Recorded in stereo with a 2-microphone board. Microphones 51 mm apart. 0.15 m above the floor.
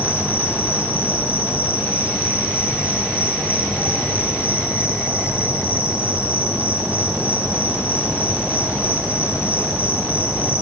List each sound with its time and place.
0.0 s an insect: 25° right (ahead or behind), 3 m